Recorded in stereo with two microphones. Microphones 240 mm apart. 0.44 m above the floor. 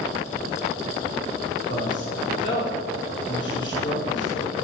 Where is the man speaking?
50° left (ahead or behind), 1.3 m.